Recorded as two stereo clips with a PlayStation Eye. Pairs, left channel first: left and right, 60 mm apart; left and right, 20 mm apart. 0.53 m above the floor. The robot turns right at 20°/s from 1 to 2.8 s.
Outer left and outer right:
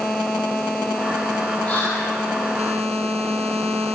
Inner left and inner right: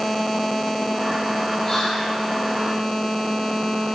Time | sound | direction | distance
1.6 | whispering | 30° left (ahead or behind) | 0.7 m